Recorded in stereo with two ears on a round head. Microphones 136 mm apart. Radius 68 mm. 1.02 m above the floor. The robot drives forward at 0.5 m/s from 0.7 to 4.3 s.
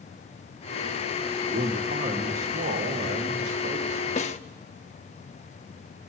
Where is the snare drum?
50° left (ahead or behind), 0.9 m; by 4.4 s 45° left (ahead or behind), 0.9 m.